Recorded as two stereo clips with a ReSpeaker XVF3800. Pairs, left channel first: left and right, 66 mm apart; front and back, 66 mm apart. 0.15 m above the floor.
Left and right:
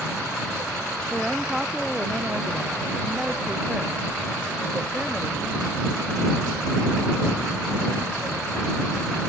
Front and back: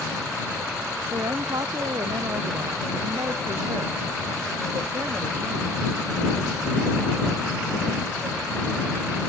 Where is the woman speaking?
175° right; by 5.7 s 160° right.